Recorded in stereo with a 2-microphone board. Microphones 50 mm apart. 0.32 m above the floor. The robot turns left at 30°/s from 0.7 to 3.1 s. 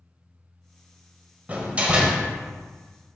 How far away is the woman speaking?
I don't hear a woman speaking.